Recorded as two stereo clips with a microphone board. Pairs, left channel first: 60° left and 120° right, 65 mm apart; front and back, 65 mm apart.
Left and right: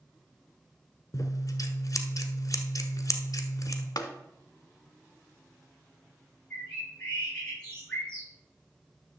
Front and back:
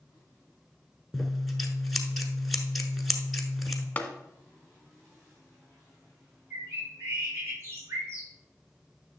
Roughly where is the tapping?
Ahead left.